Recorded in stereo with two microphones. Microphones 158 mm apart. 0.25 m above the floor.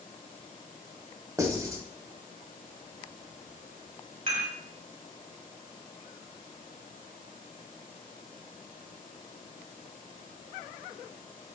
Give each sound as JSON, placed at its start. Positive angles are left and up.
{"t": 1.4, "sound": "writing", "side_deg": -25, "distance_m": 1.0}
{"t": 4.3, "sound": "dishes clattering", "side_deg": -50, "distance_m": 1.6}